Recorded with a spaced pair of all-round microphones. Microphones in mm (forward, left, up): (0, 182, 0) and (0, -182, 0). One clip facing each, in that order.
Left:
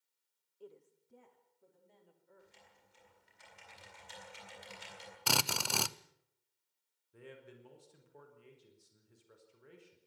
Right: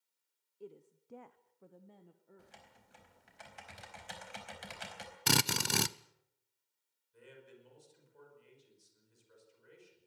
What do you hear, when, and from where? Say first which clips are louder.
0.6 s a woman speaking: right 4 dB; 30° right (ahead or behind), 1.0 m; by 2.6 s 45° right (ahead or behind), 2 m
2.4 s typing on a keyboard: right 2 dB; 75° right (ahead or behind), 4.5 m
5.3 s a drill: right 4 dB; 30° right (ahead or behind), 0.6 m
7.1 s a man speaking: left 3 dB; 65° left (ahead or behind), 5 m